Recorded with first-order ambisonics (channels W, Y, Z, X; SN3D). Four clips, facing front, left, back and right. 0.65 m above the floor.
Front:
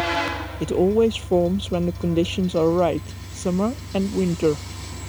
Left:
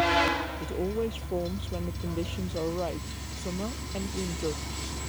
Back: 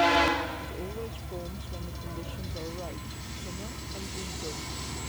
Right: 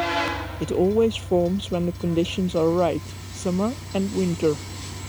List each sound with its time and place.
0.6 s a woman speaking: 35° right